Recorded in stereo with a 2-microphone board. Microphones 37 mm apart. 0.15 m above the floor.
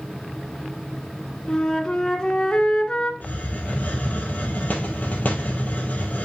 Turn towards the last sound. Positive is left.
turn(degrees=45)  # may be behind; listen again after turning